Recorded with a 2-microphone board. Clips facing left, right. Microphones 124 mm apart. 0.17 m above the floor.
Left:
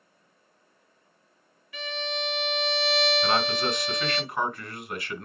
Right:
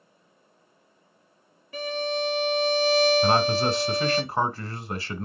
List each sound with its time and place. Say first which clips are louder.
1.7 s a violin: right 6 dB; 40° right (ahead or behind), 0.7 m
3.2 s a man speaking: right 4 dB; 35° right (ahead or behind), 1.4 m